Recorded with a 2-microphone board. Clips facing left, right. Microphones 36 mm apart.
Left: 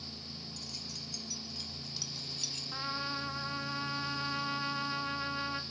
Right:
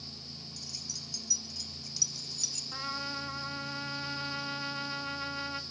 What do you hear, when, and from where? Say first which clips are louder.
0.6 s keys jangling: even; 50° left (ahead or behind), 4.5 m; by 2.6 s 30° left (ahead or behind), 3 m
2.7 s a trumpet: even; 5° left (ahead or behind), 1.8 m